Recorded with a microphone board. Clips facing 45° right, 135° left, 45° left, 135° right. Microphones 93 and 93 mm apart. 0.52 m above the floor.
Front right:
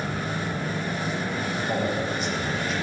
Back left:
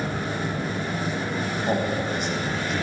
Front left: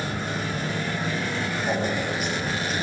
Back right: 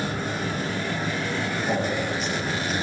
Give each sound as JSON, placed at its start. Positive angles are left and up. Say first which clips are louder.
{"t": 1.7, "sound": "a man speaking", "louder": "back left 2 dB, even", "azimuth_deg": 120, "distance_m": 3.5}